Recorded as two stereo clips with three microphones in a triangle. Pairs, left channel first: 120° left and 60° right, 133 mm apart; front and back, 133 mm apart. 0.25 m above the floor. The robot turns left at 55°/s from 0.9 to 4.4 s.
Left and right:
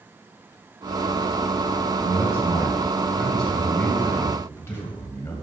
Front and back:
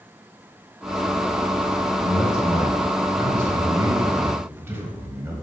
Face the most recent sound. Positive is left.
turn(degrees=145)